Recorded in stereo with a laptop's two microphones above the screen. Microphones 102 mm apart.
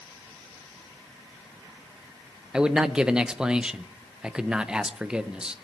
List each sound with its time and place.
2.5 s a man speaking: 10° right (ahead or behind), 0.7 m